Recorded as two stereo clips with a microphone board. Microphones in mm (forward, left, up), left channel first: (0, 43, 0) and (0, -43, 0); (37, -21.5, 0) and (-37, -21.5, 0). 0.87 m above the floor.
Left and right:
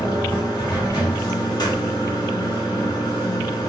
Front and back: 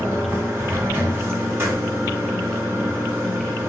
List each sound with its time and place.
0.0 s running water: 120° left, 1.1 m